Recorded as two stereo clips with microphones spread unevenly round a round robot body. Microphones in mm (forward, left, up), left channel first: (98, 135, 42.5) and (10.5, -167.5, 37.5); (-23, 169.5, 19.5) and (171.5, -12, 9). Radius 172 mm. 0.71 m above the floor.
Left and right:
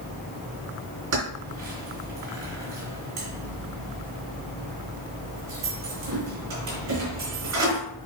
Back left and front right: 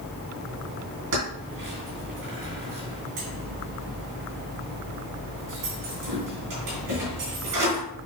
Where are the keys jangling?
70° right, 4 m.